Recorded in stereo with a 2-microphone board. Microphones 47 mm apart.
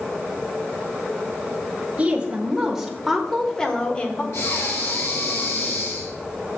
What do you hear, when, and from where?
2.0 s a woman speaking: 25° right (ahead or behind), 1.3 m; by 4.2 s 30° left (ahead or behind), 1.3 m
4.3 s breathing: 80° left, 3.5 m